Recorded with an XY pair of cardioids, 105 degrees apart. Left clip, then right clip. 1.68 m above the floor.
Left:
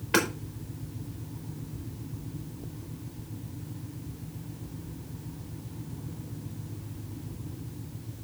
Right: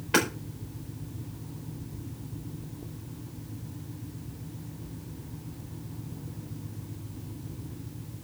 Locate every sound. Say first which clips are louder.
0.1 s hammering: even; 5° left, 5 m